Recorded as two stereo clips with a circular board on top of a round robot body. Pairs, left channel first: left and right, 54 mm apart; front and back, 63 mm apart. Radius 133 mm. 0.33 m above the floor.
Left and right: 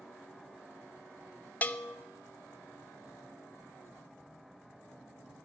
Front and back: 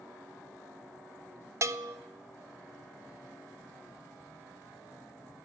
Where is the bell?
145° left, 0.5 m.